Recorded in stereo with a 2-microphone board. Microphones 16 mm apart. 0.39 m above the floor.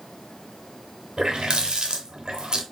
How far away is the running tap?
About 0.9 m.